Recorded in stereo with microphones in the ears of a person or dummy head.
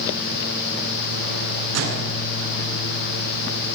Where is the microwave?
75° right (ahead or behind), 9.5 m.